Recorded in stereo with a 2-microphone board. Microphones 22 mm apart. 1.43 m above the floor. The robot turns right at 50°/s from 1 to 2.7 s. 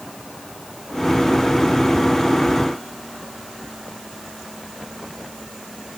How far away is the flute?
No flute in this recording.